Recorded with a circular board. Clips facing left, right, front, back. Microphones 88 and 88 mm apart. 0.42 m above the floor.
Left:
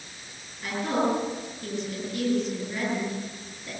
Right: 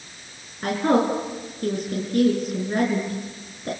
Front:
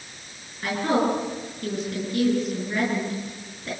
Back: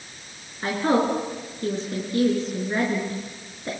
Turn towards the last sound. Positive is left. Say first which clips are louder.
# right 6 dB, back 1 dB
turn(degrees=-125)